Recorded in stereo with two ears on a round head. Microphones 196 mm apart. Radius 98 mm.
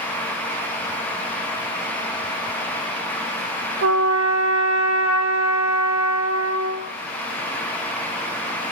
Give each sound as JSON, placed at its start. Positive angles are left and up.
{"t": 3.8, "sound": "a trumpet", "side_deg": -65, "distance_m": 2.5}